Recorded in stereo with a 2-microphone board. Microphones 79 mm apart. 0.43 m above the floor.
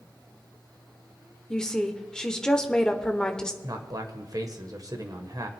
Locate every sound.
1.5 s a woman speaking: 5° left (ahead or behind), 1.1 m
3.6 s a man speaking: 50° right (ahead or behind), 1.5 m